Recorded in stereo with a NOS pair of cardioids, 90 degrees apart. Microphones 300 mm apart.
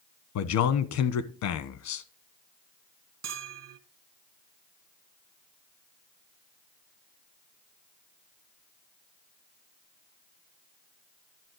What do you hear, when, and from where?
0.3 s a man speaking: 70° left, 1.1 m
3.2 s a bell: 60° right, 1.3 m